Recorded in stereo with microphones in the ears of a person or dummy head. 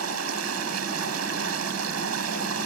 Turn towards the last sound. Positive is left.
turn(degrees=-90)